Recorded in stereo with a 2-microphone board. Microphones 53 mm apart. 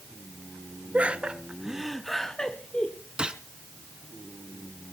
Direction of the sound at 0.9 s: 25° right (ahead or behind).